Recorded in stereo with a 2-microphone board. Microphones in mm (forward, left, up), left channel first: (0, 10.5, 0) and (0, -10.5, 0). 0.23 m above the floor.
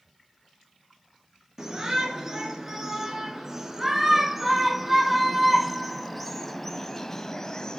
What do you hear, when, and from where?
1.6 s a shout: 20° right (ahead or behind), 3.5 m; by 7.8 s 30° left (ahead or behind), 1.2 m